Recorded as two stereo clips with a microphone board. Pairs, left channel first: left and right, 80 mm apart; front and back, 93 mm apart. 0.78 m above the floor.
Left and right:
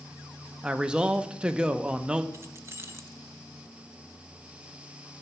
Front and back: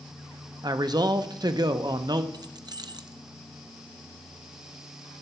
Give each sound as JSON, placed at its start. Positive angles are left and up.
{"t": 0.6, "sound": "a man speaking", "azimuth_deg": -165, "distance_m": 0.7}
{"t": 2.3, "sound": "keys jangling", "azimuth_deg": -145, "distance_m": 0.5}